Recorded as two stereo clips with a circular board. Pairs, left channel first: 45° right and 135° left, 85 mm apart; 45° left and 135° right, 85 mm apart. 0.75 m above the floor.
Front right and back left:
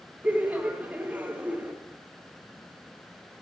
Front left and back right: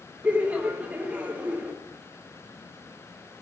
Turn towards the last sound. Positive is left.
turn(degrees=180)